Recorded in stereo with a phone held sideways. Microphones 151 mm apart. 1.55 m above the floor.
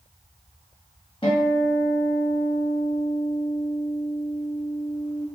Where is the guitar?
35° left (ahead or behind), 1.0 m.